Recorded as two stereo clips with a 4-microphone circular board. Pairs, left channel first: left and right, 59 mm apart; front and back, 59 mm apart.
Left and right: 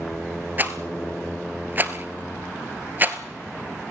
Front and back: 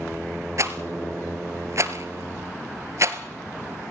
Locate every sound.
0.6 s a rattle: 145° right, 1.2 m